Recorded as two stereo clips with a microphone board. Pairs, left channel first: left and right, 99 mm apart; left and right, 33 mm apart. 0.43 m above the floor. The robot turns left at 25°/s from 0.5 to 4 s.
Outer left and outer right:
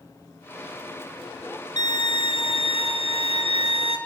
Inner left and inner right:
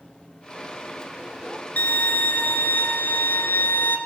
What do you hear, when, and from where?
1.8 s a violin: 135° left, 3 m; by 4.0 s 80° left, 3 m